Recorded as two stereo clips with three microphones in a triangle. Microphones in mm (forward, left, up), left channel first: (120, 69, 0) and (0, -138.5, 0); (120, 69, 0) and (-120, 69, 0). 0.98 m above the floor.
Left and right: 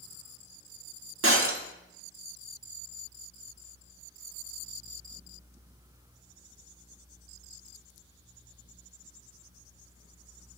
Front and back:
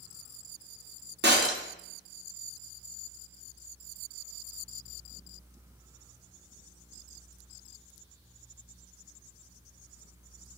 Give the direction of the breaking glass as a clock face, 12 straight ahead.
5 o'clock.